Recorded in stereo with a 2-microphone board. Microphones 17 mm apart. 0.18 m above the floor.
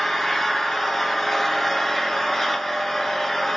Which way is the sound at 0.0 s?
20° left (ahead or behind).